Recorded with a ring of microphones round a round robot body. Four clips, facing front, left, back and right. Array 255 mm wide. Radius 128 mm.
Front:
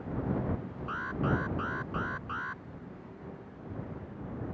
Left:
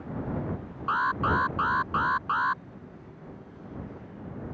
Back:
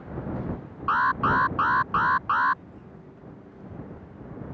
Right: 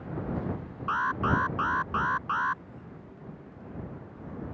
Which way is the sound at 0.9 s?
170° left.